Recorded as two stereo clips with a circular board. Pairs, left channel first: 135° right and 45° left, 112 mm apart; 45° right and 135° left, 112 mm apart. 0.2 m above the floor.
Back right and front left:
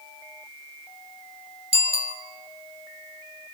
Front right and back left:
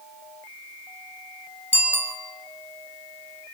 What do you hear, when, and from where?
1.7 s a bicycle bell: 65° left, 2.5 m